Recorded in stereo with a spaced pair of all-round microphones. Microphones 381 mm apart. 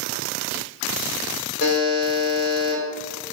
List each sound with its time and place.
1.6 s a buzzer: 40° left (ahead or behind), 1.7 m